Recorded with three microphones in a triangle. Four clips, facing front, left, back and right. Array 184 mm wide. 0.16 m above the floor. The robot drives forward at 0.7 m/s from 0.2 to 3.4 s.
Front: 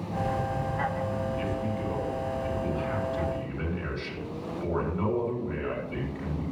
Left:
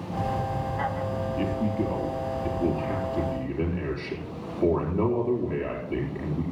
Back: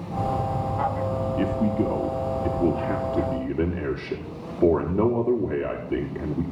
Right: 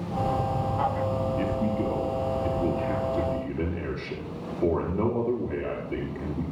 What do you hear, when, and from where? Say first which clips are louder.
1.4 s a man speaking: even, back 7 dB; 175° left, 3.5 m; by 6.4 s straight behind, 5 m